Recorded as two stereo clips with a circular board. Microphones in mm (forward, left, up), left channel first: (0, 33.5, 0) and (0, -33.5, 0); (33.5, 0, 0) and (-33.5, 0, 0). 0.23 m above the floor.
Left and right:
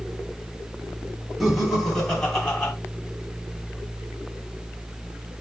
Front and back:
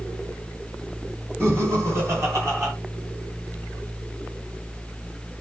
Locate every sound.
1.4 s laughter: straight behind, 2 m; by 2.7 s 155° left, 2.5 m